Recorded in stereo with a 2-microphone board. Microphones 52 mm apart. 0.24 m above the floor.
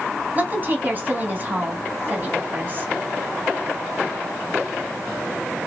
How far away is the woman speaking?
About 1.2 m.